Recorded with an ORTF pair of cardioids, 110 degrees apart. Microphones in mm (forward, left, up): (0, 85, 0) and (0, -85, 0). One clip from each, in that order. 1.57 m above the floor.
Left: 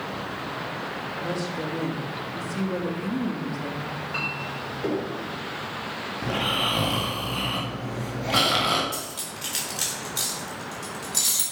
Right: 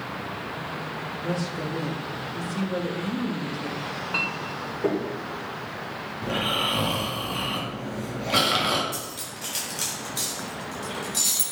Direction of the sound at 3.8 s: 25° right.